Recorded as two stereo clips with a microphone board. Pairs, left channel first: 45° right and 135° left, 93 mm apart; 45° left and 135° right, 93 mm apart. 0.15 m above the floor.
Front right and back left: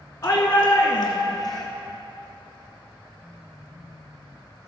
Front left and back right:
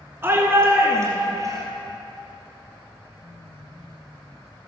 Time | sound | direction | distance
0.2 | a shout | 85° right | 1.6 m